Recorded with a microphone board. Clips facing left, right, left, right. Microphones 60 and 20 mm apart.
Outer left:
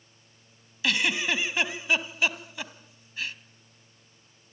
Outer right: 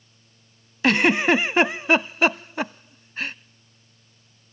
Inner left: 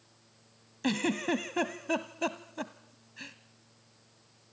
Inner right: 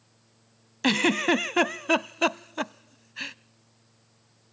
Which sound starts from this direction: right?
A giggle, at 0.8 s.